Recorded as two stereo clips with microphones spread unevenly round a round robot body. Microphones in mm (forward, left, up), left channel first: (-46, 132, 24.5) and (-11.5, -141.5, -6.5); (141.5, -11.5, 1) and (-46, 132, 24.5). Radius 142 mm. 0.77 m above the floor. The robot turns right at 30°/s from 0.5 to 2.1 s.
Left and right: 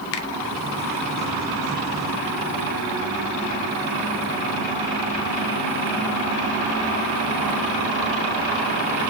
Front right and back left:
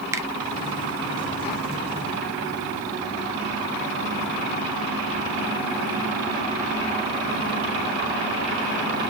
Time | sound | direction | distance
0.1 | a finger snap | 60° left | 1.1 m